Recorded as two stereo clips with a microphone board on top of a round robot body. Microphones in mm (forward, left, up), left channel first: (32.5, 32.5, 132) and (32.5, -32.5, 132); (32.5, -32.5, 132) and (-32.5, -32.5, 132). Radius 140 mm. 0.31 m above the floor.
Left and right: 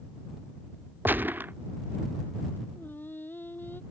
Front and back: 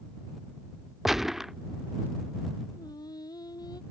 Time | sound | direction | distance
1.1 | a gunshot | 100° right | ?
2.8 | singing | 30° left | ?